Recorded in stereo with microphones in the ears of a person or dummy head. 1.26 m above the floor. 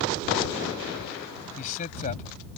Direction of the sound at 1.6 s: 45° left (ahead or behind).